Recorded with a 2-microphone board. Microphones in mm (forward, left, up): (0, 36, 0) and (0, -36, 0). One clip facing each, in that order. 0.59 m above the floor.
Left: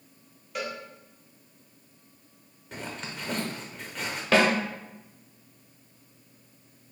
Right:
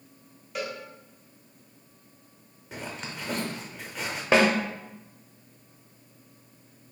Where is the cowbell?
Centre (ahead or behind), 0.8 m.